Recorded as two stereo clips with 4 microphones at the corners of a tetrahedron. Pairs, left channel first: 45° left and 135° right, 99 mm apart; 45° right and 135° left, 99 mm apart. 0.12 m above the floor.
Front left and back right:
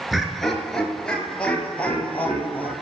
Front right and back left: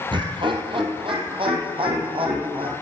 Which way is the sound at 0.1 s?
135° left.